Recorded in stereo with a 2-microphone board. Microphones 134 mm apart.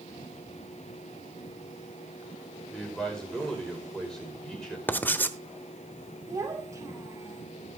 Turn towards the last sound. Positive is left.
turn(degrees=-25)  # may be behind; listen again after turning